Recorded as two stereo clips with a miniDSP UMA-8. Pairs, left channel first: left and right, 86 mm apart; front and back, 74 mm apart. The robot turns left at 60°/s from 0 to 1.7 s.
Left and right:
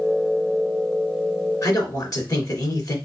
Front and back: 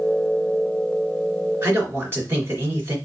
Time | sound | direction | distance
1.6 | a man speaking | 130° left | 2.5 m